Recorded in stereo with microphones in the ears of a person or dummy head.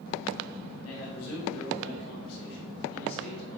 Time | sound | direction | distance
0.8 | a man speaking | 85° left | 3 m